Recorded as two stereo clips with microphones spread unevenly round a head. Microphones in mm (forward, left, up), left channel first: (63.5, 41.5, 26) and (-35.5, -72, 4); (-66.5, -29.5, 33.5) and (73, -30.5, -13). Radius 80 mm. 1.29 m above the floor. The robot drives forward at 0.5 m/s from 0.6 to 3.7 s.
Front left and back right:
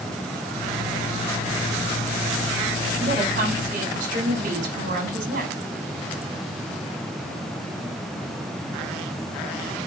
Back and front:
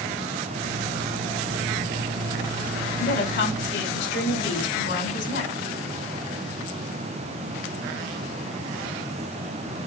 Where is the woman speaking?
Straight behind, 5 m.